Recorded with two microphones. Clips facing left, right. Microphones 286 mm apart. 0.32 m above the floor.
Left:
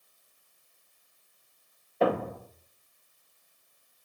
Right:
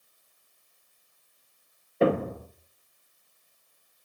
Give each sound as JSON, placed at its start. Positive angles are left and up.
{"t": 2.0, "sound": "a thud", "side_deg": -30, "distance_m": 0.9}